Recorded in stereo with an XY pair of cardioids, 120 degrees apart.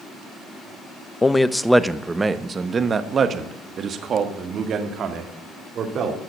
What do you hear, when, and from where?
1.2 s a man speaking: 15° left, 0.7 m; by 6.2 s 60° right, 2.5 m